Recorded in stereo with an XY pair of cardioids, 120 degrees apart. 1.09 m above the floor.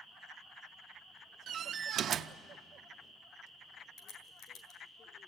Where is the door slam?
50° right, 0.7 m.